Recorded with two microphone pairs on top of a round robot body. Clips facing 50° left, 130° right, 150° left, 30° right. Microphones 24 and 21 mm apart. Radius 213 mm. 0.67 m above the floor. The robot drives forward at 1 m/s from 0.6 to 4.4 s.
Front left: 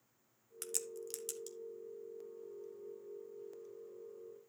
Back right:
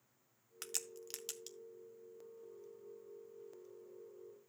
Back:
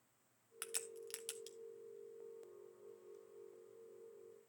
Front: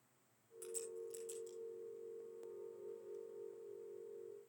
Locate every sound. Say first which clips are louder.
0.6 s a crack: front left 3 dB, front 1 dB; 160° left, 0.6 m; by 1.6 s 175° left, 1.5 m